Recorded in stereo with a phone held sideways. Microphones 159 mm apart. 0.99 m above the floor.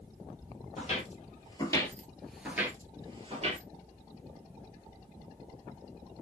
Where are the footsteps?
45° left (ahead or behind), 1.4 m; by 3.6 s 45° right (ahead or behind), 1.3 m.